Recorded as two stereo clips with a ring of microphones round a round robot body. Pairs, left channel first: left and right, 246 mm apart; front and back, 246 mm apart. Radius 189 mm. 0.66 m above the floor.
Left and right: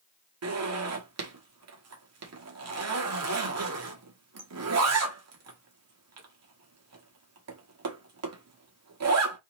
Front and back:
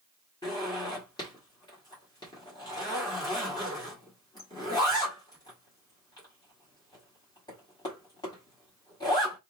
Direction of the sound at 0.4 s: 75° right.